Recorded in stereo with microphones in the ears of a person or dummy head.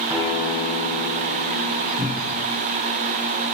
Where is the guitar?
15° right (ahead or behind), 2.5 m.